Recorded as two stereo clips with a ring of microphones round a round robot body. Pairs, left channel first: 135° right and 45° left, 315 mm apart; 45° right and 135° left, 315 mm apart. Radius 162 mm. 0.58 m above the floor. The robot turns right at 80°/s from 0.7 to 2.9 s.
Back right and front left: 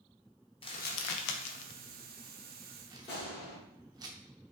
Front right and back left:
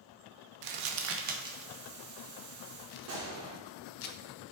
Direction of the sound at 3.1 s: 170° left.